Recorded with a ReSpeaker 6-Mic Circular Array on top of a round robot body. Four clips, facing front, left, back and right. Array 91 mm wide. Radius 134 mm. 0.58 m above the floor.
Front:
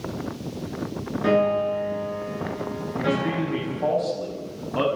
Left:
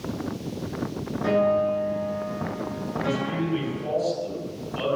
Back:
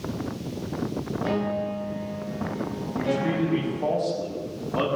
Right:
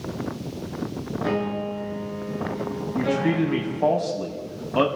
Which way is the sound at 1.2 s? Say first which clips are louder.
Left 6 dB, front 8 dB; 10° left.